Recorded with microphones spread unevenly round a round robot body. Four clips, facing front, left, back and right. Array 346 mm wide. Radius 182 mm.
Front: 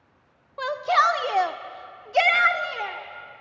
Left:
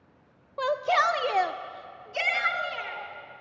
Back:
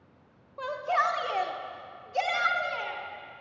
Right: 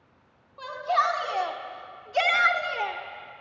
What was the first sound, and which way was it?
A shout, 65° left.